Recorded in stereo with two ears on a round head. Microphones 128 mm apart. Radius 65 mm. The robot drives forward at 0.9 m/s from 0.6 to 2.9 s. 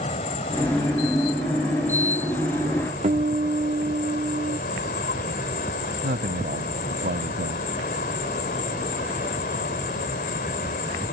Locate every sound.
0.0 s an insect: 45° left (ahead or behind); by 11.1 s 70° left (ahead or behind)
3.0 s a guitar: 45° right (ahead or behind)
6.0 s a man speaking: 70° right (ahead or behind)